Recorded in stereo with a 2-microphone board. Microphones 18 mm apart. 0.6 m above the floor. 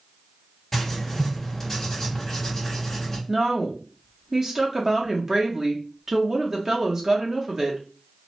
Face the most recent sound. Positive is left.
turn(degrees=-35)  # may be behind; listen again after turning